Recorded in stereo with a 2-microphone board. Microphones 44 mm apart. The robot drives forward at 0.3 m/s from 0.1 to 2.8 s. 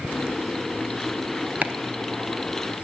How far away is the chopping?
About 0.5 m.